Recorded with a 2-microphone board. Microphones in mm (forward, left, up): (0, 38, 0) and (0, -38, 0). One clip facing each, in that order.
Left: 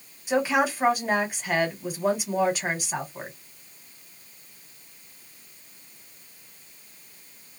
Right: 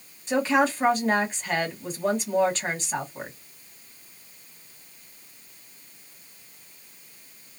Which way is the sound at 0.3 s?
10° left (ahead or behind).